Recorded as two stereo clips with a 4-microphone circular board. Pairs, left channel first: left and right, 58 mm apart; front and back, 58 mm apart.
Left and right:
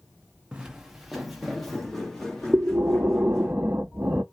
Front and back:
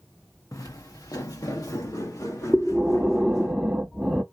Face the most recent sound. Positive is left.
turn(degrees=-105)